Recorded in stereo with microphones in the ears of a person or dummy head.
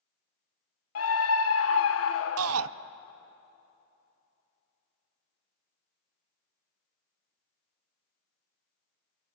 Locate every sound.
0.9 s a scream: 70° left (ahead or behind), 1.2 m
2.4 s a shout: 80° right, 0.6 m